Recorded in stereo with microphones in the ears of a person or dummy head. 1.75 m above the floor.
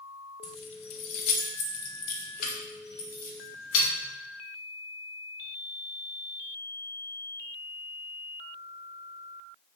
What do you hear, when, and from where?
0.4 s keys jangling: 30° left (ahead or behind), 0.7 m; by 3.9 s 55° left (ahead or behind), 2.5 m